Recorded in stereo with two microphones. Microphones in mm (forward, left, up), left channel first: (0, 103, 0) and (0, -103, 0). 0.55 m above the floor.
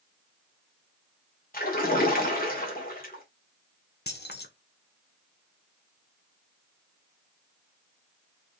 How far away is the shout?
I don't hear a shout.